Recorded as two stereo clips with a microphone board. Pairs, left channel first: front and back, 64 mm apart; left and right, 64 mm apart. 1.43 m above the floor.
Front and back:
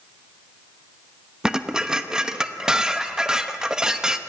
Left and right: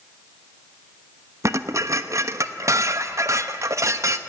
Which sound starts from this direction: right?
Dishes clattering, at 1.4 s.